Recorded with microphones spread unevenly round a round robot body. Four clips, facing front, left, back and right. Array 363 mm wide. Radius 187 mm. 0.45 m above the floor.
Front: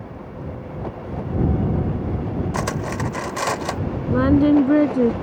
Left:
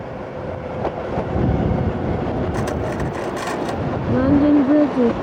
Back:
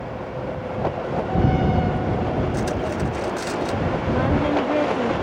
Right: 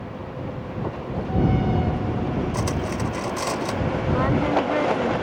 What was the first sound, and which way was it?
Cutlery clinking, 10° right.